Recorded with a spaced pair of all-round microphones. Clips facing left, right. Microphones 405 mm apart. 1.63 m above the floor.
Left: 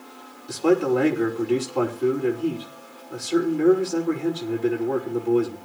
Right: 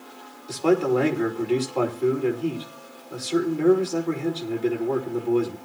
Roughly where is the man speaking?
Left.